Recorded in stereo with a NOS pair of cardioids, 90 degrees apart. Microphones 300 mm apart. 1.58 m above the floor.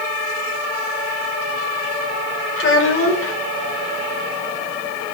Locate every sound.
2.6 s a child speaking: 45° left, 3.5 m